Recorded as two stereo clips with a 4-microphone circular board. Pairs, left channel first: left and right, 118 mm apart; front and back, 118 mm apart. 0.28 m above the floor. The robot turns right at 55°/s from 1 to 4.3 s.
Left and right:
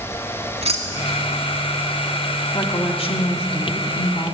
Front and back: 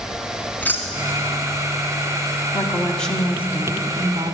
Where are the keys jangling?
75° right, 1.5 m; by 1.6 s 45° right, 1.5 m.